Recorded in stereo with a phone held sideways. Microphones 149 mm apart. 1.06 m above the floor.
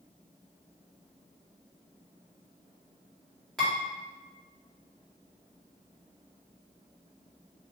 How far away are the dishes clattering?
About 1.6 m.